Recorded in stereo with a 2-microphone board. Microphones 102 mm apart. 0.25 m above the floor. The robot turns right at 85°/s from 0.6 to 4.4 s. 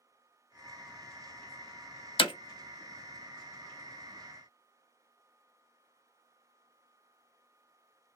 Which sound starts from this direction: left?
Hammering, at 2.2 s.